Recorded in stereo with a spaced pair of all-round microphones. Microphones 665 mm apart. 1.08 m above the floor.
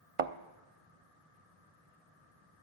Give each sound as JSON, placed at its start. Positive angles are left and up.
{"t": 0.2, "sound": "a thud", "side_deg": -55, "distance_m": 0.8}